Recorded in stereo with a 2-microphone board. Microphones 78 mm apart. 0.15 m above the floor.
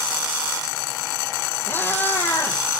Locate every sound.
1.7 s a cat meowing: 30° left (ahead or behind), 1.1 m